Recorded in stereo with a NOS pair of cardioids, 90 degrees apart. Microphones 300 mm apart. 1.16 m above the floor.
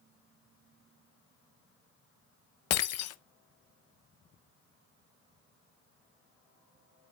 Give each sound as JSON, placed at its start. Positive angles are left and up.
{"t": 2.7, "sound": "breaking glass", "azimuth_deg": 60, "distance_m": 0.6}